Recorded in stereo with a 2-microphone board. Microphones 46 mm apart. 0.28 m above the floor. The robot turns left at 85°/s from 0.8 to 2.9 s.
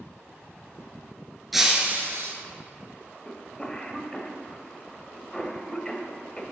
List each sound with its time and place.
1.5 s breaking glass: straight ahead, 1.4 m; by 2.3 s 70° right, 1.4 m
3.2 s a cough: 15° left (ahead or behind), 0.9 m